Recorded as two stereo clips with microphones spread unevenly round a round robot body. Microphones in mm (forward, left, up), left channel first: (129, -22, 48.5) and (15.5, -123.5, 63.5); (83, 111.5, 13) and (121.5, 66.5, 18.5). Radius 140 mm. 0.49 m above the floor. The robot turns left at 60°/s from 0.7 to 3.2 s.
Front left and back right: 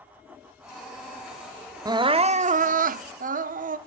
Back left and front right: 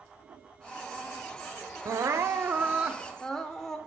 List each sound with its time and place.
1.9 s crying: 70° right, 0.6 m; by 3.8 s 150° right, 0.6 m